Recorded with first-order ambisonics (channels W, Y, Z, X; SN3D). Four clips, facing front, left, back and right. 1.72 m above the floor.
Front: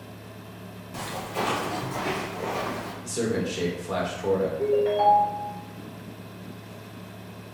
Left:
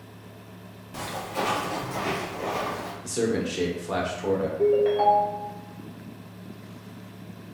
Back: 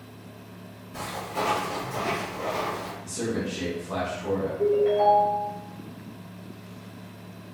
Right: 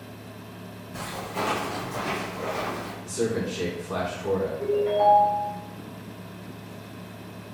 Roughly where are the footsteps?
Ahead left.